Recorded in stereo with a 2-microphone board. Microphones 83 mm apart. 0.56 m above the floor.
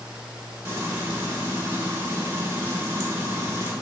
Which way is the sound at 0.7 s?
35° right (ahead or behind).